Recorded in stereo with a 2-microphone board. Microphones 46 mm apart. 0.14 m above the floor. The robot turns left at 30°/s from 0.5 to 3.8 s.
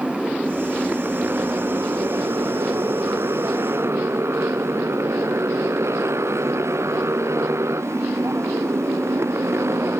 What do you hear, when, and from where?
0.0 s a motorcycle: 25° right (ahead or behind); by 10.0 s 75° right (ahead or behind)